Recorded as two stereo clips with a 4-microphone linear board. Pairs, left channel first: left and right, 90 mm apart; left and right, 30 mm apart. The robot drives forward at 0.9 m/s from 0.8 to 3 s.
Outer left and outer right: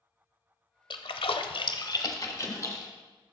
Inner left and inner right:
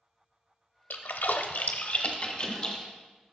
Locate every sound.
0.9 s a splash: 65° left (ahead or behind), 0.7 m; by 2.9 s 25° left (ahead or behind), 1.6 m